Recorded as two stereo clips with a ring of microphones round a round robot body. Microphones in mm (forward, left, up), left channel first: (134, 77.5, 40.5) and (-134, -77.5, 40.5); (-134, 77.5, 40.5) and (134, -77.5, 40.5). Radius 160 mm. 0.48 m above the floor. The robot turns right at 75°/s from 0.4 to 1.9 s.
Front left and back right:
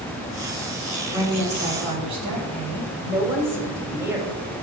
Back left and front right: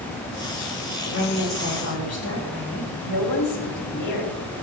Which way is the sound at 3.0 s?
130° left.